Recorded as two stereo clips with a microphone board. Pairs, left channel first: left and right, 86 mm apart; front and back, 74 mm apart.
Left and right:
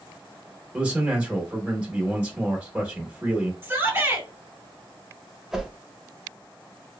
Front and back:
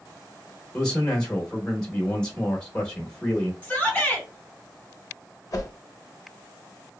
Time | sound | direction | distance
0.7 | a man speaking | 55° right | 0.8 m
3.6 | a shout | 50° right | 1.7 m
5.5 | a whoosh | 5° right | 0.6 m